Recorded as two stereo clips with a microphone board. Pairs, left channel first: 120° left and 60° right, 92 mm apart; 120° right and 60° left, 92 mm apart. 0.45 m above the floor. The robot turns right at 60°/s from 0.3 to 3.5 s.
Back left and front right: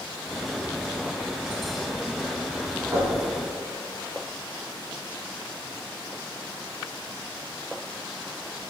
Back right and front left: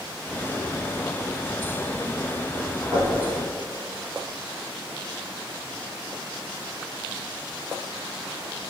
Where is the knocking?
5° right, 2 m; by 3.2 s 10° left, 2 m.